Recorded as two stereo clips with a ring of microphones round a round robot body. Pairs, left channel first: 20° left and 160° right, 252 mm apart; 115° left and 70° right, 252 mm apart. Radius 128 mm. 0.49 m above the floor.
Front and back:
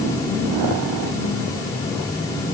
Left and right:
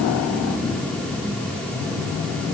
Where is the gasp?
I don't hear a gasp.